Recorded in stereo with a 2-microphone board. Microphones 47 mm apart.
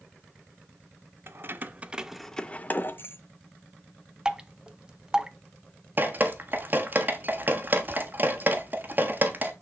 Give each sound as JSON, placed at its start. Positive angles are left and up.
{"t": 1.3, "sound": "keys jangling", "side_deg": -50, "distance_m": 0.8}
{"t": 4.2, "sound": "dripping", "side_deg": -15, "distance_m": 0.6}
{"t": 6.0, "sound": "dripping", "side_deg": -40, "distance_m": 1.1}